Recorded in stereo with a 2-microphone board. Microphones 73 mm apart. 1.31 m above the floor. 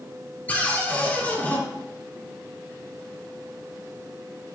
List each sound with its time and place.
0.5 s a cupboard door: 20° left (ahead or behind), 3.5 m